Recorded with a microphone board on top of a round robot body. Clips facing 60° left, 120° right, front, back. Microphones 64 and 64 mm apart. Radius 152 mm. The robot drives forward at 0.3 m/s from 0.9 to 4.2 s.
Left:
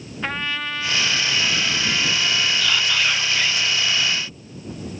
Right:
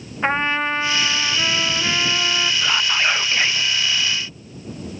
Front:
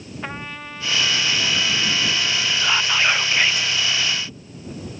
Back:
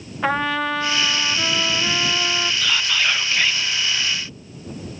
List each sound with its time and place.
0.2 s a trumpet: straight behind
2.6 s whispering: 60° right; by 3.7 s 75° right